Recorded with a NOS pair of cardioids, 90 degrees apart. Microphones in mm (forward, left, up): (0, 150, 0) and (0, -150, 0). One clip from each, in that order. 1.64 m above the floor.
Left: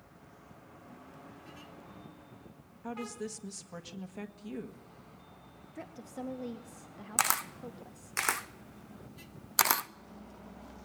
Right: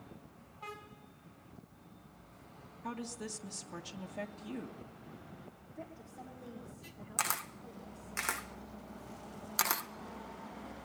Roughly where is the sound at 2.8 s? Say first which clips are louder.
Left 3 dB; ahead.